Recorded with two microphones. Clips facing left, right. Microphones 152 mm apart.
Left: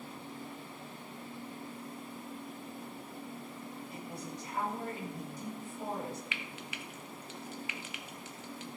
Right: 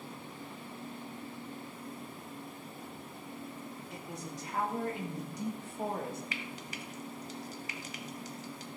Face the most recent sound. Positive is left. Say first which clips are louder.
# right 2 dB
turn(degrees=-40)  # may be behind; listen again after turning